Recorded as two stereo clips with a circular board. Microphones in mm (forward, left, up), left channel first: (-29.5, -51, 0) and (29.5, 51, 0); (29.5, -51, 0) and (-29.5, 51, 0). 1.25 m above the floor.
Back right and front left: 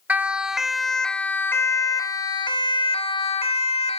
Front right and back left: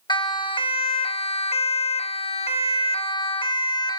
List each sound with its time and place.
0.1 s a siren: 15° right; by 4.0 s 105° right